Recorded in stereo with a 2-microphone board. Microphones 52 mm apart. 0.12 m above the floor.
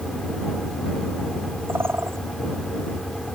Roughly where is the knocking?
I don't hear knocking.